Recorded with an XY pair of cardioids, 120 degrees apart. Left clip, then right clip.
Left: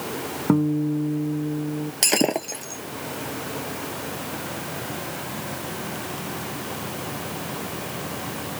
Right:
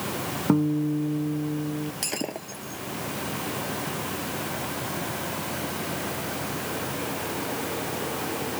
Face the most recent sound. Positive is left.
turn(degrees=60)